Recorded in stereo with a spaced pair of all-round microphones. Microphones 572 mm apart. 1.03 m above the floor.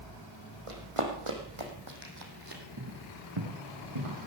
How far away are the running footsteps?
About 3.5 m.